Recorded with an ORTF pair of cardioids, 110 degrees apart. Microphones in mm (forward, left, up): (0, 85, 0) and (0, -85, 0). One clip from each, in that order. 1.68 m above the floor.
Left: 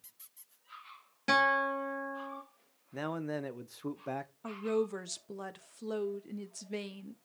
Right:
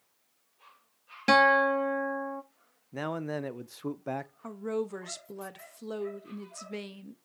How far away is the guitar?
About 2 m.